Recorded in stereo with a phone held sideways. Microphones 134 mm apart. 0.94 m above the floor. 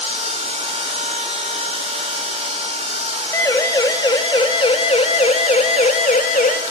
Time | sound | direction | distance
0.0 | a machine running | 50° right (ahead or behind) | 2 m
3.3 | a siren | 20° left (ahead or behind) | 2 m